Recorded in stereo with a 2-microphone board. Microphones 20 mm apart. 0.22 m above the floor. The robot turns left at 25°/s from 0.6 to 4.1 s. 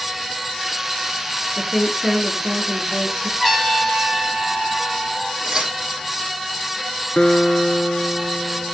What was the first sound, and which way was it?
A woman speaking, 25° left.